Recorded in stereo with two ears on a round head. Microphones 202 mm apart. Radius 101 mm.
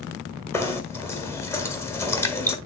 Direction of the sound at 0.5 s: 10° left (ahead or behind).